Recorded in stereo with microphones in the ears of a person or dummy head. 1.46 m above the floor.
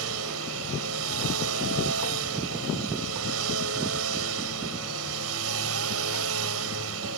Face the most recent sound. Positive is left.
turn(degrees=-75)  # may be behind; listen again after turning